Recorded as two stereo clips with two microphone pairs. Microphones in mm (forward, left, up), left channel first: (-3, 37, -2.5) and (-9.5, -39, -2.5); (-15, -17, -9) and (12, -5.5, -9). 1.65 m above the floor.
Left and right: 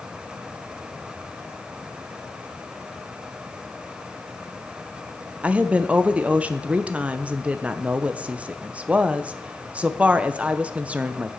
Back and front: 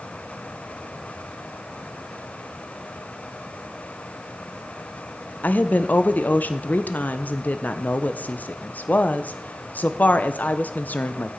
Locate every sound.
5.4 s a woman speaking: 165° right, 0.9 m